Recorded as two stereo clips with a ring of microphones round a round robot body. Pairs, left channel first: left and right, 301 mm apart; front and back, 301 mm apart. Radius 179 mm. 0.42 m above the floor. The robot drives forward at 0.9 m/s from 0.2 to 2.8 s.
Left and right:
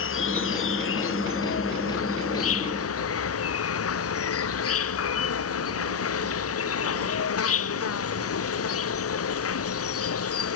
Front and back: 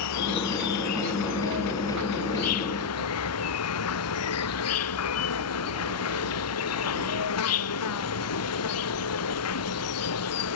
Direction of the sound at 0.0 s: 40° left.